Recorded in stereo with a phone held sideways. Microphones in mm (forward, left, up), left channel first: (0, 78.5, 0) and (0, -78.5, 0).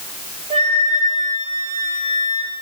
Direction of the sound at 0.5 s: 50° right (ahead or behind).